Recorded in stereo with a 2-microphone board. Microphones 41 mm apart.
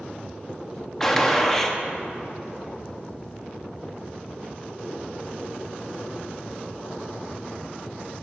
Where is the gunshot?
10° left (ahead or behind), 0.7 m.